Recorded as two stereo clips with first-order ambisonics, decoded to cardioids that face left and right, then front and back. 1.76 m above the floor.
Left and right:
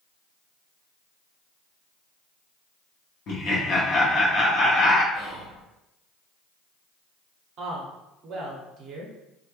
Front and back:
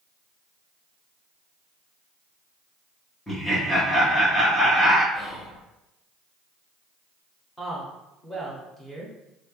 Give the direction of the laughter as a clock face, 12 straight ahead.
10 o'clock.